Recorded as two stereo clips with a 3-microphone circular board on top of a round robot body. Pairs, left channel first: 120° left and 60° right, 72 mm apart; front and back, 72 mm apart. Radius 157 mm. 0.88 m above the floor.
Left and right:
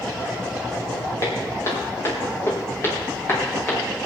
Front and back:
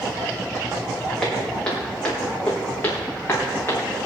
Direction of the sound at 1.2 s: 80° left.